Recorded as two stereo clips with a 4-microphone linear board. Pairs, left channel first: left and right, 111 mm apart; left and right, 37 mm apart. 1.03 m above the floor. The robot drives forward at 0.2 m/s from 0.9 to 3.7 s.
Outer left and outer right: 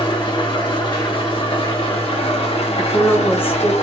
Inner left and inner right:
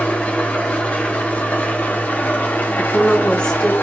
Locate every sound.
0.0 s an engine running: 50° left (ahead or behind), 1.1 m; by 3.8 s 75° left (ahead or behind), 0.8 m
2.8 s a woman speaking: 20° left (ahead or behind), 0.9 m